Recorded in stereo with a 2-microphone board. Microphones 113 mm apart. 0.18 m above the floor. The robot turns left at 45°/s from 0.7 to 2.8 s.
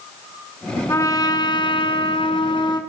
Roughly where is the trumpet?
Behind left.